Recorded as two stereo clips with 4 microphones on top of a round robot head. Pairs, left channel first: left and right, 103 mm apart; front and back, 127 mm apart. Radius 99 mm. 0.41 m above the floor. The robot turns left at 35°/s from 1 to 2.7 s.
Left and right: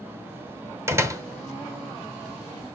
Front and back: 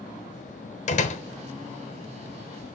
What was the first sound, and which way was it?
A door slam, 25° right.